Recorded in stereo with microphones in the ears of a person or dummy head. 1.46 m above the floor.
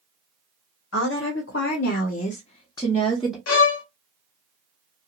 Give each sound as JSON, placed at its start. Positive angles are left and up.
{"t": 0.9, "sound": "a woman speaking", "side_deg": 85, "distance_m": 1.1}
{"t": 3.5, "sound": "a violin", "side_deg": 80, "distance_m": 0.7}